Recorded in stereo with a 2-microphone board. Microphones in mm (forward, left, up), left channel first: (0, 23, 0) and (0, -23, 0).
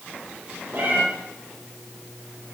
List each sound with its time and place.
0.7 s a cat meowing: 45° right (ahead or behind), 4 m